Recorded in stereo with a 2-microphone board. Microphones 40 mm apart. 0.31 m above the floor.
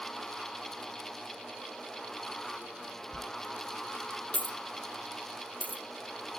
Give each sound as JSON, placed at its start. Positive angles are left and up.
{"t": 3.1, "sound": "a dropped coin", "side_deg": 40, "distance_m": 0.8}